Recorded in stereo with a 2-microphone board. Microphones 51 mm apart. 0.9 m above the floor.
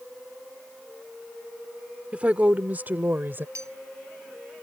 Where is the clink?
85° right.